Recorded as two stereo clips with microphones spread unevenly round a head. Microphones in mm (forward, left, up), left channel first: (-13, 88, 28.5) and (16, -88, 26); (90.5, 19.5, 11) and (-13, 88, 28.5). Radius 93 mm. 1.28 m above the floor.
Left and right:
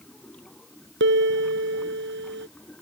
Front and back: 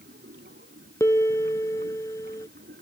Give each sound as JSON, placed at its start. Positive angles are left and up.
{"t": 0.0, "sound": "running water", "azimuth_deg": -175}
{"t": 1.0, "sound": "a piano", "azimuth_deg": -110}